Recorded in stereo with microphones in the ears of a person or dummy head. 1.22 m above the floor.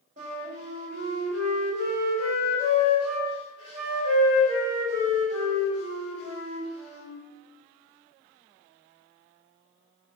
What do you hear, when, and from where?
0.2 s a flute: 30° right (ahead or behind), 1.1 m